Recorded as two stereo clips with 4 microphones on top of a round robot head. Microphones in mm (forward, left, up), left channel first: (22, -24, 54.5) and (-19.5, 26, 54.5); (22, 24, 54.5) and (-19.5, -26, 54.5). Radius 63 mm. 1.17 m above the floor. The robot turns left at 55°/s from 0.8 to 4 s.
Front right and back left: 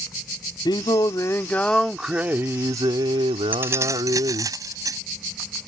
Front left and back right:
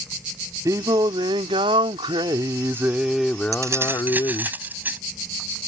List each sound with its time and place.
0.7 s singing: 80° right; by 4.5 s 100° left
3.5 s keys jangling: 170° right; by 5.0 s 165° left